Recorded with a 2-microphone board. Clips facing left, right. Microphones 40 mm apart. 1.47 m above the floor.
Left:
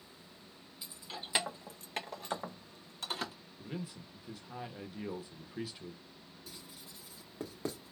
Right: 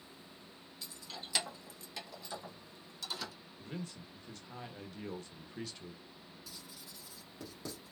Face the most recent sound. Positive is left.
turn(degrees=35)  # may be behind; listen again after turning